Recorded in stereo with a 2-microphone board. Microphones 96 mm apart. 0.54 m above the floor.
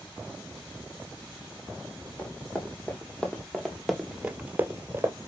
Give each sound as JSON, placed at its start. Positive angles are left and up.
{"t": 2.2, "sound": "running footsteps", "side_deg": 15, "distance_m": 1.5}